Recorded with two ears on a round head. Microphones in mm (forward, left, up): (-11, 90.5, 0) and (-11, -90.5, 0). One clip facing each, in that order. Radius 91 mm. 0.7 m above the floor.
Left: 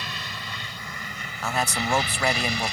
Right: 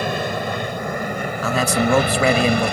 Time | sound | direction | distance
0.0 | an aircraft | 45° right (ahead or behind) | ?
1.4 | a man speaking | 70° right (ahead or behind) | ?